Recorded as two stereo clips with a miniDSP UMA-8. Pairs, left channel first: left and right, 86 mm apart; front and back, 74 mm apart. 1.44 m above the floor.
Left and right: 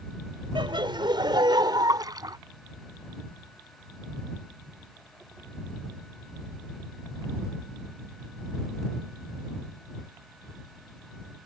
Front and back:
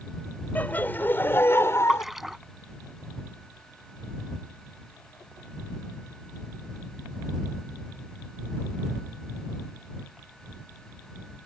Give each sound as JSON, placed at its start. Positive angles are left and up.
{"t": 0.6, "sound": "laughter", "azimuth_deg": -65}
{"t": 1.9, "sound": "a splash", "azimuth_deg": -90}